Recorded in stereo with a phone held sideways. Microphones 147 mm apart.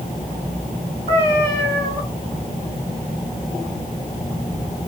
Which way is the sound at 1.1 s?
20° right (ahead or behind).